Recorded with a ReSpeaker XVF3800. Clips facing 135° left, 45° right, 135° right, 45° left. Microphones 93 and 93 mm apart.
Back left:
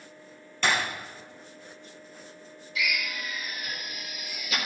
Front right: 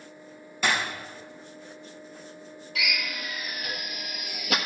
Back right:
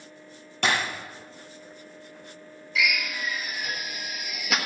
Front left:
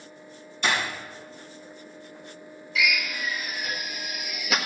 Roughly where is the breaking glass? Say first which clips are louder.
Even, back right 1 dB; behind right.